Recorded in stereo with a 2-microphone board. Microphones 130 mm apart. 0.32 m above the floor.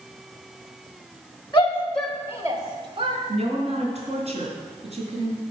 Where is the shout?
30° left (ahead or behind), 1.0 m; by 3.2 s 50° right (ahead or behind), 1.4 m.